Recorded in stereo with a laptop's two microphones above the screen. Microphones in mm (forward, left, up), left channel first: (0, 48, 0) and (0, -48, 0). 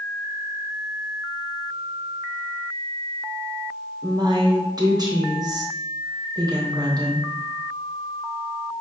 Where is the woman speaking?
45° right (ahead or behind), 0.7 m.